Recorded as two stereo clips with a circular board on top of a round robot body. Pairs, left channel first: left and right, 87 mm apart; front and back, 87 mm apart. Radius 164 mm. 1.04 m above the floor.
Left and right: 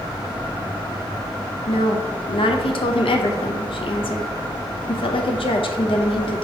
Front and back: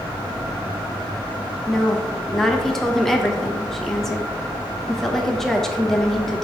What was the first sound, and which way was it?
A woman speaking, 85° left.